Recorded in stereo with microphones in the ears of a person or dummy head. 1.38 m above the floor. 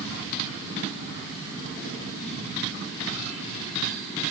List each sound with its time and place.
Only background noise.